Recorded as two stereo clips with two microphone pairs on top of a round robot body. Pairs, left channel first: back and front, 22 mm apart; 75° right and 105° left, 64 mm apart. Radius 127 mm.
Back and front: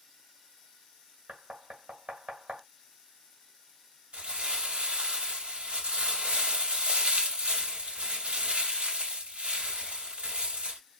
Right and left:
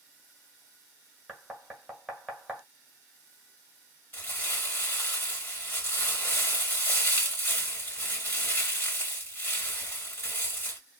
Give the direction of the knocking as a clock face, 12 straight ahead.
12 o'clock.